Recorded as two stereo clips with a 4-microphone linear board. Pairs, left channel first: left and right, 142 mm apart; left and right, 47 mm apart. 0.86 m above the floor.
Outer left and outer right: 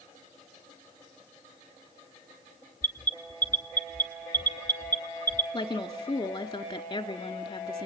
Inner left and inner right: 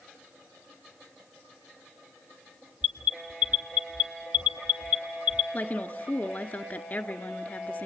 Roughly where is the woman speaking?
Left.